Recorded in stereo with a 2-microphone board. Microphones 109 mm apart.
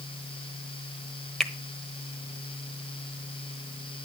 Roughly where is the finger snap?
Centre.